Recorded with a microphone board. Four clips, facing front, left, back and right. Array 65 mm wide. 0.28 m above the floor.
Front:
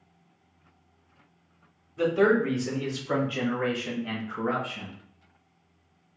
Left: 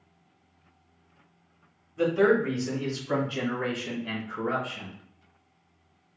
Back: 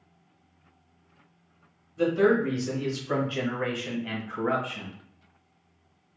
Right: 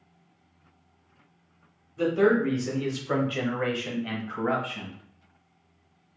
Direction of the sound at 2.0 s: 20° left.